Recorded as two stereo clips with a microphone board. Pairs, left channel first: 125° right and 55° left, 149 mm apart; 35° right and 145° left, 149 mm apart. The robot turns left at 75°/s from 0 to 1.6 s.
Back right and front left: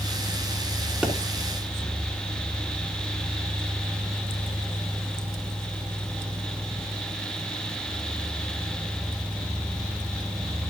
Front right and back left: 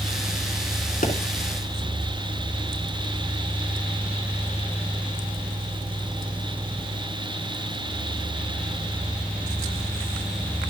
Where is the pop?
25° right, 2.5 m; by 1.1 s 35° right, 2.5 m.